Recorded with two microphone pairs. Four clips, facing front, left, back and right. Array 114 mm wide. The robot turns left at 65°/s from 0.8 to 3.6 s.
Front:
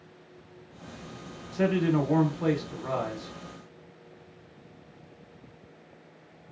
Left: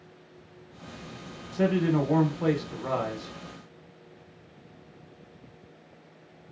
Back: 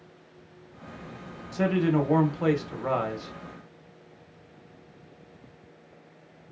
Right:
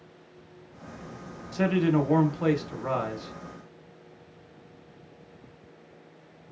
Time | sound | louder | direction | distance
1.5 | a man speaking | right 1 dB, back 1 dB | 65° right | 0.8 m